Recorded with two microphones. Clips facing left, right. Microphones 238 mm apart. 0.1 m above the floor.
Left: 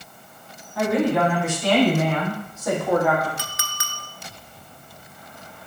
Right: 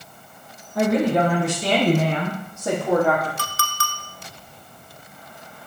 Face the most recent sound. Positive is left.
turn(degrees=15)  # may be behind; listen again after turning